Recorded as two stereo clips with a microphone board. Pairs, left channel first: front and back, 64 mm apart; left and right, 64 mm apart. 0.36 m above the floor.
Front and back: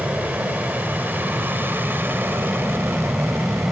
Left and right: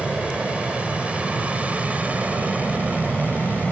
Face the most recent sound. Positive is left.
turn(degrees=-145)